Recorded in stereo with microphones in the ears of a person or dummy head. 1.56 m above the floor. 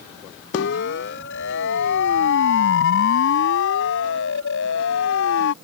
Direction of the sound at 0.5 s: 55° left (ahead or behind).